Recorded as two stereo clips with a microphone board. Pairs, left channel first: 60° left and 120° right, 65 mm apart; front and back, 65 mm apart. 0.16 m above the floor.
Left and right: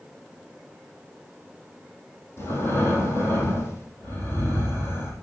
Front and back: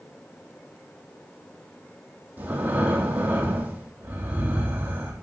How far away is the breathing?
About 4 m.